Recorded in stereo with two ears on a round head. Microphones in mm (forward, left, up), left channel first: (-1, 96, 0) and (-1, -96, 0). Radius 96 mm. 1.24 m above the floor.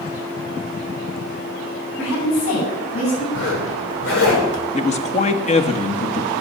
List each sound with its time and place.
2.0 s a woman speaking: 65° left (ahead or behind), 8.5 m
3.3 s a zipper: 65° left (ahead or behind), 7.5 m
4.7 s a man speaking: 35° left (ahead or behind), 1.3 m